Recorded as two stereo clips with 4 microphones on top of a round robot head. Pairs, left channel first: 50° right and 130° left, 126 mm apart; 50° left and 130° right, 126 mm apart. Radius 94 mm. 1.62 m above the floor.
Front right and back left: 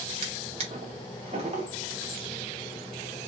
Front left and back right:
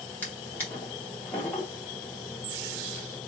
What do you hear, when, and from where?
0.2 s a drawer: 120° left, 0.8 m